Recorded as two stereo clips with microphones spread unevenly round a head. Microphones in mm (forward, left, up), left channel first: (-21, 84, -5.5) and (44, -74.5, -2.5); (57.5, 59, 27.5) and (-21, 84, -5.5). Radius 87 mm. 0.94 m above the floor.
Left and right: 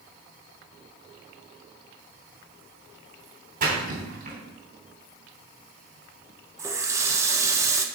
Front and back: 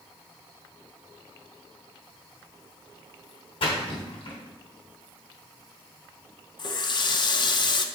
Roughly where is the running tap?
Ahead.